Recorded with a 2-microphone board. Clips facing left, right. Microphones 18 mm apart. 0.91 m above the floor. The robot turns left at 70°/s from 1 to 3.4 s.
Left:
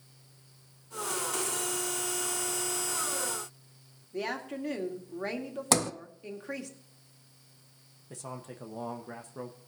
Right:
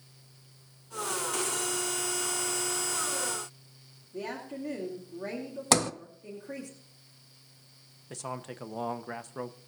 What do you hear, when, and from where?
4.1 s a woman speaking: 50° left (ahead or behind), 2 m
5.7 s a sliding door: 15° right (ahead or behind), 0.5 m
8.1 s a man speaking: 40° right (ahead or behind), 0.9 m